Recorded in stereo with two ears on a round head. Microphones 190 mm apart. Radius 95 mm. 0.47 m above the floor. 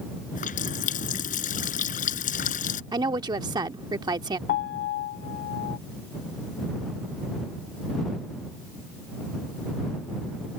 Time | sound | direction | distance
0.3 | a running tap | 40° left (ahead or behind) | ?
2.9 | a woman speaking | 20° right (ahead or behind) | ?
4.5 | a piano | 45° left (ahead or behind) | ?